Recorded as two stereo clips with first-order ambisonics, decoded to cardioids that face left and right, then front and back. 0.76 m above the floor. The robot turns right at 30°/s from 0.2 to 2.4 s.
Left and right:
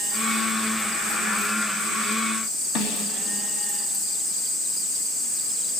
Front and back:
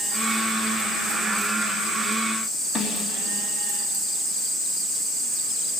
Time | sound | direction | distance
2.8 | a snare drum | 80° left | 3 m